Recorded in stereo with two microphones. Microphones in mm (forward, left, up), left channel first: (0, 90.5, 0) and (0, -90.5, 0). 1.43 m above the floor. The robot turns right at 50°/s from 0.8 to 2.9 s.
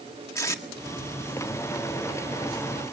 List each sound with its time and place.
0.3 s tape being pulled: 15° left (ahead or behind), 1.7 m